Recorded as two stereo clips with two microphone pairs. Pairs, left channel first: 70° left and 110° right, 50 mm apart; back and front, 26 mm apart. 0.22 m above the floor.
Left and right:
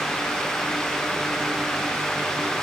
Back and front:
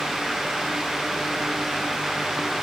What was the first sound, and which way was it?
Only background noise.